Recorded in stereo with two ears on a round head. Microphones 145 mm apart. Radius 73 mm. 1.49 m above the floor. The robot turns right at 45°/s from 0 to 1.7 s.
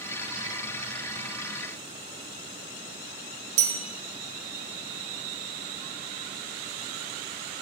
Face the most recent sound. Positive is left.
turn(degrees=-45)  # may be behind; listen again after turning